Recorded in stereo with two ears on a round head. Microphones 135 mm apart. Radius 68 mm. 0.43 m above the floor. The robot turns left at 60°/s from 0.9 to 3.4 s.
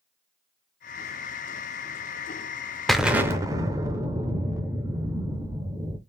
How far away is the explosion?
About 0.6 m.